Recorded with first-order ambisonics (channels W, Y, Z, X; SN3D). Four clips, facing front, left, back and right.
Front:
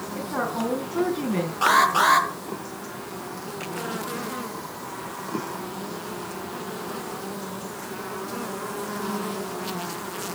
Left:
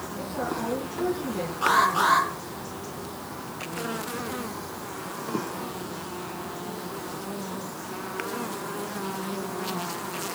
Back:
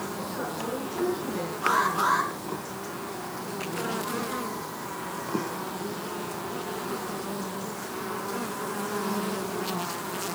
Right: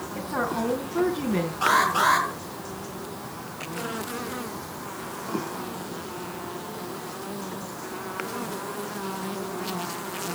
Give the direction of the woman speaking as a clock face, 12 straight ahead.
2 o'clock.